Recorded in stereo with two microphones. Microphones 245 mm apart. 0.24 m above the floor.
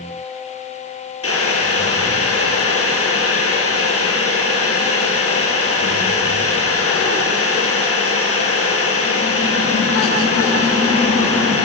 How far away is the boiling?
About 4.5 m.